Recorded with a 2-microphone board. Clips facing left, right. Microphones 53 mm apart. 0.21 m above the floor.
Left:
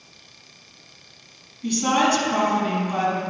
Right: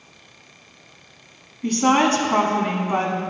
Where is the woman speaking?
40° right (ahead or behind), 1.4 m.